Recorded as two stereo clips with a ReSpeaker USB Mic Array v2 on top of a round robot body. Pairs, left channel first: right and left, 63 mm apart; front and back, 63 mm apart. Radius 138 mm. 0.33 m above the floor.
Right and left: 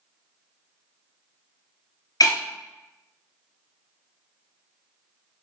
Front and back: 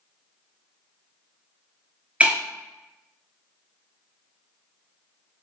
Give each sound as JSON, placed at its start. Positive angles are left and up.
{"t": 2.2, "sound": "breaking glass", "azimuth_deg": -110, "distance_m": 0.9}